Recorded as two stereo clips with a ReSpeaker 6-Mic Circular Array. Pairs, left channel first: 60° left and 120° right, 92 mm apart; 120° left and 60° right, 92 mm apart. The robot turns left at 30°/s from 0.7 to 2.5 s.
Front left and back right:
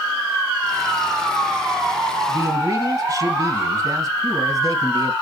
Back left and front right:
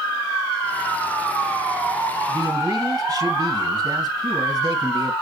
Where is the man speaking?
80° right, 1.9 m; by 5.1 s 85° right, 1.9 m.